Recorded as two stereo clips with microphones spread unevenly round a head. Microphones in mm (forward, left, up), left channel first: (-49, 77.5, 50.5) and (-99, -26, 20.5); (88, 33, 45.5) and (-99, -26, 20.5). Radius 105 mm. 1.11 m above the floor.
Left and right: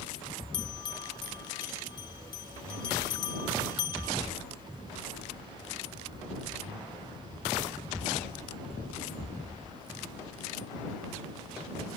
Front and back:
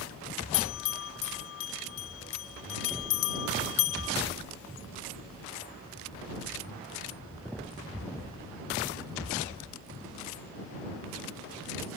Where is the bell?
Straight ahead.